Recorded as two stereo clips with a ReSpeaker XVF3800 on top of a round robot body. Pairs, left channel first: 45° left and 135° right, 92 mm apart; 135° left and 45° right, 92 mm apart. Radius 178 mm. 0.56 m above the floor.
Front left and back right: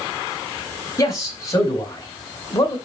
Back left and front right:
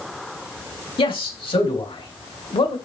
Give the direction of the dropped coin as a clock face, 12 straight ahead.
No dropped coin in this recording.